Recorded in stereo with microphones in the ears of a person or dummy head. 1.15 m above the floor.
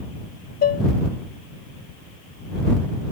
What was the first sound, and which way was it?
Dishes clattering, 45° left (ahead or behind).